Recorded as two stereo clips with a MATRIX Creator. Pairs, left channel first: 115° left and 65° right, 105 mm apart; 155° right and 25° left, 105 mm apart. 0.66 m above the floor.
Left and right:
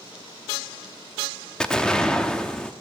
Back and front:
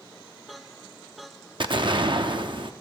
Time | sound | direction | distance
1.6 | an explosion | 35° left | 0.7 m